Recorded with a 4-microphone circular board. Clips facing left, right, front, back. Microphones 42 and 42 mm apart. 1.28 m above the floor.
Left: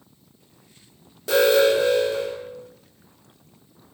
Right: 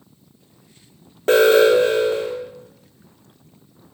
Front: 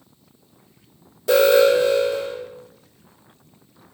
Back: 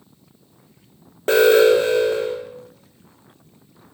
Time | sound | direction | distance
1.3 | an alarm | 135° right | 3 m